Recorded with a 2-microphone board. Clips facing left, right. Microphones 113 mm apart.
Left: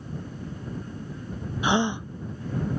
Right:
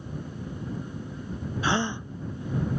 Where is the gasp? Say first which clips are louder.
Left 4 dB; 15° left (ahead or behind).